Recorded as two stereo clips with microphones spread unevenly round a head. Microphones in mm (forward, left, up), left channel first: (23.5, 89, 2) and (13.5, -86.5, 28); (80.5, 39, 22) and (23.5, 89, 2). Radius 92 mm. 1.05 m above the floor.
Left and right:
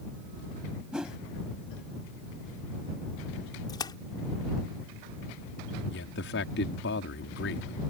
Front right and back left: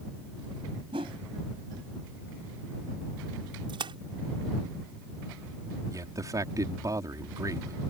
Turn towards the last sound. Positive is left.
turn(degrees=100)